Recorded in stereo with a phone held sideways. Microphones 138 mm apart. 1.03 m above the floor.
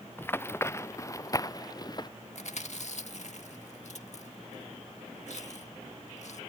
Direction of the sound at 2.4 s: 65° left (ahead or behind).